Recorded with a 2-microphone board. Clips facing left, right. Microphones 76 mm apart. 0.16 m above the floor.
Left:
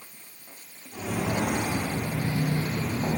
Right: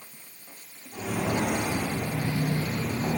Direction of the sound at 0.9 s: 5° left (ahead or behind).